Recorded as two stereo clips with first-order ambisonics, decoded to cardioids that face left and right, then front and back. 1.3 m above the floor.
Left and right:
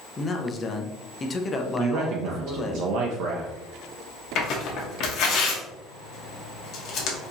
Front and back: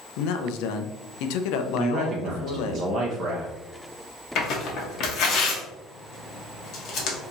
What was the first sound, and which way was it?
A man speaking, 20° left.